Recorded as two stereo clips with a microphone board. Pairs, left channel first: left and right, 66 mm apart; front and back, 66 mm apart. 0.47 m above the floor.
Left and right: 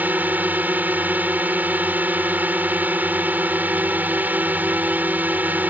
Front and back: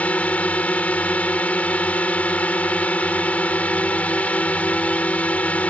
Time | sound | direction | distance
0.0 | a drone | 50° right | ?